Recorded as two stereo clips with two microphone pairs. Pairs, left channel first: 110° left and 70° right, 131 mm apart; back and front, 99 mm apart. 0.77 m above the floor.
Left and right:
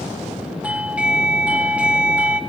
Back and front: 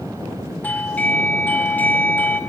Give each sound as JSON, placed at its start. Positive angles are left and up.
{"t": 0.6, "sound": "a doorbell", "azimuth_deg": -140, "distance_m": 0.8}